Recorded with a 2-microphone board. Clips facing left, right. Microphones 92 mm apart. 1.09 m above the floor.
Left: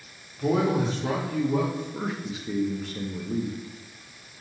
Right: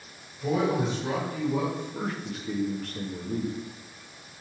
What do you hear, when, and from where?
0.4 s a man speaking: 75° left (ahead or behind), 3 m
1.9 s a man speaking: 5° left (ahead or behind), 1.3 m